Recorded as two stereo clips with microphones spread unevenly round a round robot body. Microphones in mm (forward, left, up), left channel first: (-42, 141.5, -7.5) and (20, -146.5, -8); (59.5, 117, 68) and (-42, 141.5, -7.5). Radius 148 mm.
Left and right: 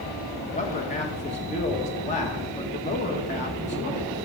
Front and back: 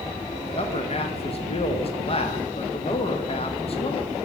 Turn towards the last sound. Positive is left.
turn(degrees=50)